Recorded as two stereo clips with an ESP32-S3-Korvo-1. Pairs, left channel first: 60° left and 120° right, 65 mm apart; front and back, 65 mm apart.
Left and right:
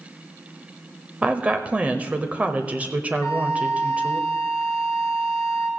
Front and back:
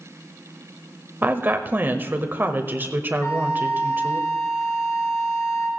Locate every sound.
1.2 s a woman speaking: 165° right, 0.9 m
3.2 s a flute: 25° left, 5.5 m